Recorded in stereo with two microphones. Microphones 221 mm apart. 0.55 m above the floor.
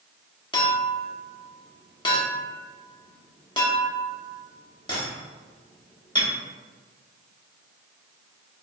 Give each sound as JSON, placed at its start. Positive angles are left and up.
{"t": 0.5, "sound": "a clink", "side_deg": 20, "distance_m": 0.7}